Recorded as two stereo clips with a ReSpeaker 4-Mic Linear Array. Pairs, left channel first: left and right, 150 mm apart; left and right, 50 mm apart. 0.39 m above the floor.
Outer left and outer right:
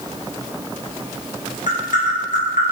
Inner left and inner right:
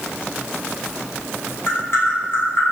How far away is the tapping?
About 1.3 m.